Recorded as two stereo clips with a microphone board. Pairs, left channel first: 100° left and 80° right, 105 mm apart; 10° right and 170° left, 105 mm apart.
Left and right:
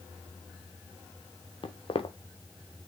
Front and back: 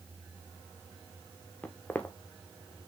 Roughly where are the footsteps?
Ahead left.